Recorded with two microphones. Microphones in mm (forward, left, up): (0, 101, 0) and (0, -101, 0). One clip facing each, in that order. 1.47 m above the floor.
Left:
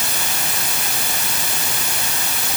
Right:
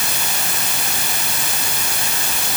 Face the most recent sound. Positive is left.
No sound to turn to.